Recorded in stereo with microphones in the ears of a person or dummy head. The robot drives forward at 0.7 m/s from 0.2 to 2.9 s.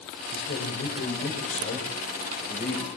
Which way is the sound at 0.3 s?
50° left (ahead or behind).